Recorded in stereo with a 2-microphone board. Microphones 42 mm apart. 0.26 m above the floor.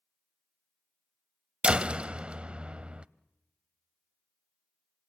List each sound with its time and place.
1.6 s a door slam: 30° right (ahead or behind), 0.7 m